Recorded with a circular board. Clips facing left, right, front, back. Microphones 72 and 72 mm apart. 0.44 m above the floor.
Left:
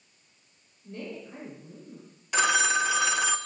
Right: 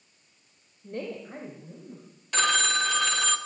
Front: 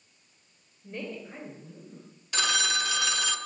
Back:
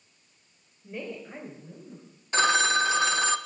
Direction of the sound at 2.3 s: 165° left.